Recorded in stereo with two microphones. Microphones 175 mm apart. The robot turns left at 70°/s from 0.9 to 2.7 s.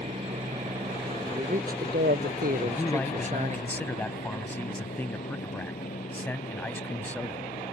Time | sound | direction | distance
0.0 | a helicopter | 35° right (ahead or behind) | ?
1.2 | a man speaking | 35° right | ?
2.6 | a man speaking | 10° left (ahead or behind) | ?